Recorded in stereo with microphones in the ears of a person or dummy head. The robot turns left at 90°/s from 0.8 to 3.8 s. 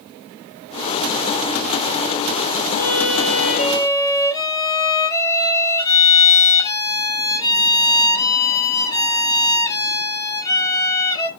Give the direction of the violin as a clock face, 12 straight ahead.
8 o'clock.